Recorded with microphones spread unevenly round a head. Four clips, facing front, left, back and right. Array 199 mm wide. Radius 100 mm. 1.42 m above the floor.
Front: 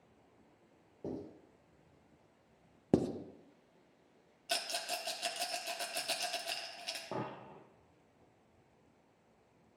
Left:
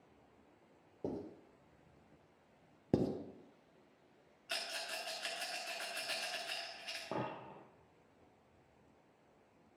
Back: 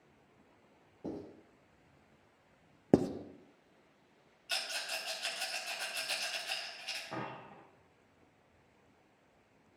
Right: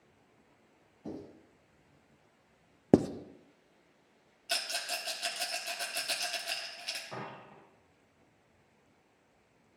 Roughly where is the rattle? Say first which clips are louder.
Right 6 dB, front 3 dB; ahead.